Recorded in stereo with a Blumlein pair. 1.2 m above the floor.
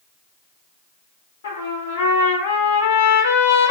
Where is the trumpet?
60° left, 1.2 m.